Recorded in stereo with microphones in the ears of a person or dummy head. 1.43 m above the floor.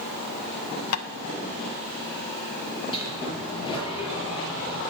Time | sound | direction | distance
0.9 | tapping | 85° left | 0.8 m
2.9 | a sliding door | 30° left (ahead or behind) | 4.5 m